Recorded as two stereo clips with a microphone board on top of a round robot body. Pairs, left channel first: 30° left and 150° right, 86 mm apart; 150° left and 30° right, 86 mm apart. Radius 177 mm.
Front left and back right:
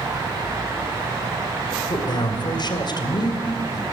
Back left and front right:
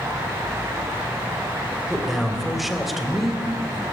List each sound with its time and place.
1.9 s a man speaking: 60° left, 3 m